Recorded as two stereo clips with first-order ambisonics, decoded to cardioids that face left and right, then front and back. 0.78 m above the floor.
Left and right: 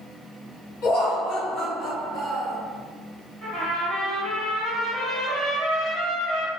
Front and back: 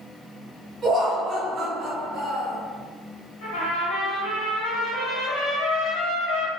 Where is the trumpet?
10° right, 1.4 m.